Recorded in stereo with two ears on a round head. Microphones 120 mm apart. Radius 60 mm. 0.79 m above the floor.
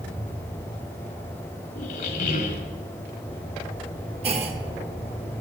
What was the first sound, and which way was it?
A squeak, 65° left (ahead or behind).